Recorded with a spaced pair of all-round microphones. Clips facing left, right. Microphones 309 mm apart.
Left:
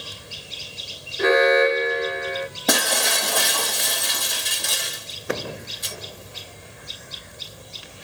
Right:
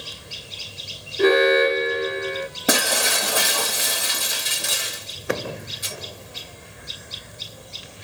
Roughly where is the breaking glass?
Centre.